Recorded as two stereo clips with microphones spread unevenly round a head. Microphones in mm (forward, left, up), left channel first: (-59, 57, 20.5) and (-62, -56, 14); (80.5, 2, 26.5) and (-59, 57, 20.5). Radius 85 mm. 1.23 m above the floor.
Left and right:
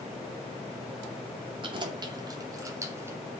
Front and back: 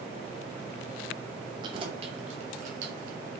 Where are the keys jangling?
135° right, 2.5 m; by 3.2 s 160° right, 2.5 m.